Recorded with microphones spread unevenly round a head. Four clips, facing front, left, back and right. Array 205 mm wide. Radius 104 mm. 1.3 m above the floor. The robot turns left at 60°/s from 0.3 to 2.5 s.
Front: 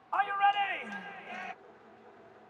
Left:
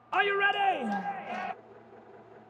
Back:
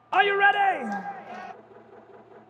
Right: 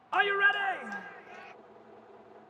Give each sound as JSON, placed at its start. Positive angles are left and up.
{"t": 0.1, "sound": "a shout", "azimuth_deg": 170}